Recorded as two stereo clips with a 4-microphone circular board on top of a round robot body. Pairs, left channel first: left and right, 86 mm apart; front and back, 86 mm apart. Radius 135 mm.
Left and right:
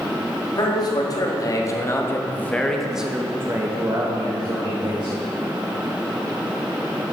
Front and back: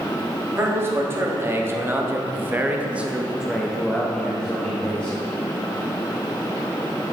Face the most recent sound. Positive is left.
turn(degrees=-75)